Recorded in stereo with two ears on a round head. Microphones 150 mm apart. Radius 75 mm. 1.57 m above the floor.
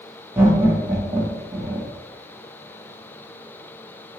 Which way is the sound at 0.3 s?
10° right (ahead or behind).